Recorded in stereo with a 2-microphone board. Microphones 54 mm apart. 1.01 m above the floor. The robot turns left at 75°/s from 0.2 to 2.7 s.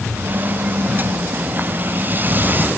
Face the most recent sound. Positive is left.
No sound to turn to.